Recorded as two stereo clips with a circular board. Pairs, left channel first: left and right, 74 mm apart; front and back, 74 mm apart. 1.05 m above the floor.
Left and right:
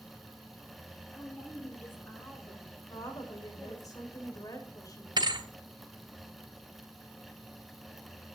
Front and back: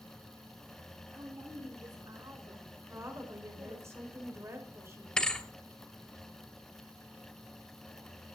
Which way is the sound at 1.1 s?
145° left.